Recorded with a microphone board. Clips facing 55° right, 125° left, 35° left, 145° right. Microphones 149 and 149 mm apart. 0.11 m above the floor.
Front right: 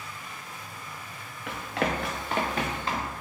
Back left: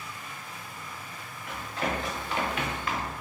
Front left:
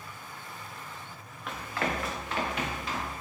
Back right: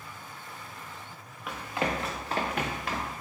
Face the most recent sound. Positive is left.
turn(degrees=-120)